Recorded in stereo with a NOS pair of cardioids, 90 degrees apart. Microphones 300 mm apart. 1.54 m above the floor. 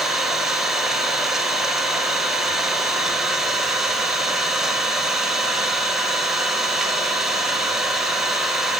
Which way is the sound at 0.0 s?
Straight ahead.